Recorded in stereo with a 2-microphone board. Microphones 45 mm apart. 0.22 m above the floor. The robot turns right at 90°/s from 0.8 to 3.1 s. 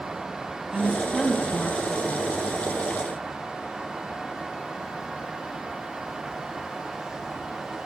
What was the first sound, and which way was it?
A woman speaking, 30° right.